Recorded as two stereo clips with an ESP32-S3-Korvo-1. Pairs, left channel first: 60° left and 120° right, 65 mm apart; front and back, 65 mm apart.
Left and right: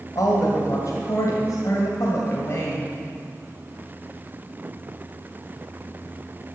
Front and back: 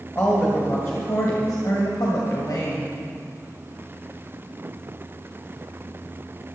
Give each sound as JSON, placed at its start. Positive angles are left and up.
{"t": 0.1, "sound": "a woman speaking", "azimuth_deg": 50, "distance_m": 1.9}